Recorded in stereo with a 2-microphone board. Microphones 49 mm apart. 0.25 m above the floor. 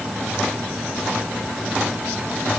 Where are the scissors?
I don't hear scissors.